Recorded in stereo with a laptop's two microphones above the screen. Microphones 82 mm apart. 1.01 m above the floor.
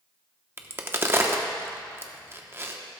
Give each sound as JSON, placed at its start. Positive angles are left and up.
{"t": 0.6, "sound": "a crack", "side_deg": -30, "distance_m": 0.8}